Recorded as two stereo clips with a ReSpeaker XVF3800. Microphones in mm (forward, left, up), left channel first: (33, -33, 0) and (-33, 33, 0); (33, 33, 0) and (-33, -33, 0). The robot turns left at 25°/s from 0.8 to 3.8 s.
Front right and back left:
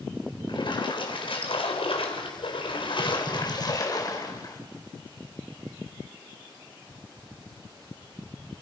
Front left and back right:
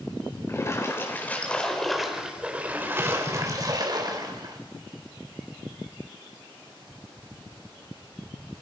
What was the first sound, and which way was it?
A splash, 15° right.